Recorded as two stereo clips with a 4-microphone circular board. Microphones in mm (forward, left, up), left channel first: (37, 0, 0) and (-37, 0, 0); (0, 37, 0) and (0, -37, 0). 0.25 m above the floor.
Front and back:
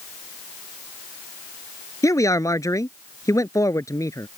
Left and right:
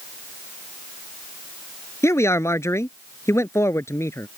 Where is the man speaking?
40° left.